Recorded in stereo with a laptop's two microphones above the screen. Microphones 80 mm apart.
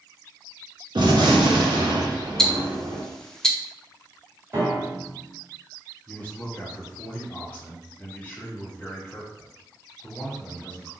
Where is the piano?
30° right (ahead or behind), 1.8 m.